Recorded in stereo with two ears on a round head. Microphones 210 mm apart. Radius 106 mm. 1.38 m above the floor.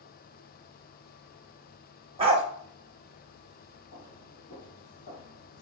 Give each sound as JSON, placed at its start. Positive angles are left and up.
{"t": 2.2, "sound": "a dog barking", "side_deg": -25, "distance_m": 1.1}
{"t": 3.9, "sound": "footsteps", "side_deg": 35, "distance_m": 1.7}